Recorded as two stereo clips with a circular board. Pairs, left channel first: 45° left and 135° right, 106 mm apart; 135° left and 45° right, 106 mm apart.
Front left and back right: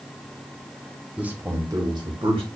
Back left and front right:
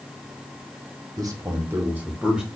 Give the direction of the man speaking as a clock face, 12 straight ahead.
2 o'clock.